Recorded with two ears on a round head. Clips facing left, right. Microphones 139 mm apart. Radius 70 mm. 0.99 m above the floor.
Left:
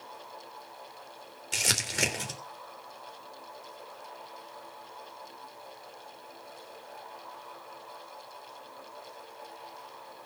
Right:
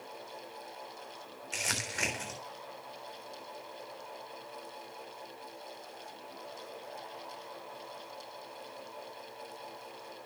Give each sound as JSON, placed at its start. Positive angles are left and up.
{"t": 1.5, "sound": "crumpling", "side_deg": 40, "distance_m": 3.0}